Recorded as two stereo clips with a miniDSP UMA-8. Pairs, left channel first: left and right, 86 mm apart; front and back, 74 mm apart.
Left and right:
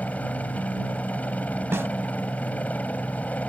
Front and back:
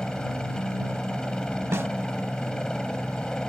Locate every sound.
0.0 s a helicopter: 60° left
1.7 s a snare drum: 140° right